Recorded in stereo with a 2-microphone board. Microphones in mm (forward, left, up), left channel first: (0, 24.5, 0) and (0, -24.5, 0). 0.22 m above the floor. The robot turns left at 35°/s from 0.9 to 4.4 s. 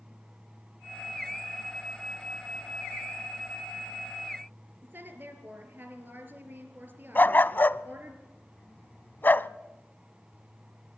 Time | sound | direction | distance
4.8 | a woman speaking | 45° right (ahead or behind) | 4 m
7.2 | a dog barking | 45° left (ahead or behind) | 0.6 m